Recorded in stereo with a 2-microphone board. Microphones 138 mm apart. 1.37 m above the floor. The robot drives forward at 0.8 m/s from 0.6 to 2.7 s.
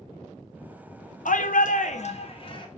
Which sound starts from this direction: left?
A shout, at 1.2 s.